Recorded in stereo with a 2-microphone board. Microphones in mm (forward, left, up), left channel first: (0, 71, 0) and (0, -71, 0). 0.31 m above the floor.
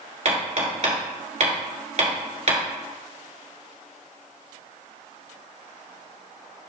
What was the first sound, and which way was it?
Hammering, 55° right (ahead or behind).